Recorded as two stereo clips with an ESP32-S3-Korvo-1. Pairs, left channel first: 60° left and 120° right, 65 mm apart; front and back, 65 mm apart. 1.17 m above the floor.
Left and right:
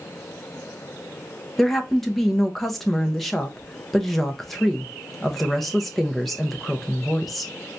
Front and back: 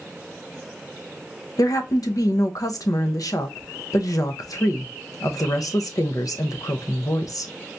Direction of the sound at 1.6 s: 25° right.